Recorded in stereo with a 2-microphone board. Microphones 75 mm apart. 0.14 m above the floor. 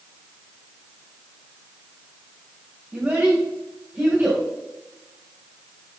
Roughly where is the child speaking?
Centre.